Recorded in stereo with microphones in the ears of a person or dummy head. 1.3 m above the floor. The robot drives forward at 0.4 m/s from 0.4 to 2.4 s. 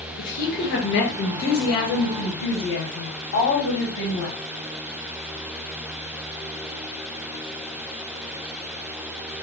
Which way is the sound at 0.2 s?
50° left (ahead or behind).